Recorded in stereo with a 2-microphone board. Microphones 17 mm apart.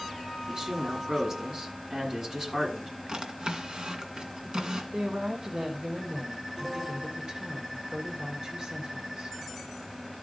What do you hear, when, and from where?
0.5 s a woman speaking: 40° right (ahead or behind), 7.5 m
3.1 s a drawer: 55° right (ahead or behind), 1.7 m
4.9 s a woman speaking: 60° right (ahead or behind), 2 m